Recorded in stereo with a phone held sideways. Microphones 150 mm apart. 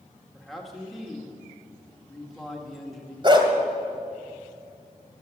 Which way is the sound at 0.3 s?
Centre (ahead or behind).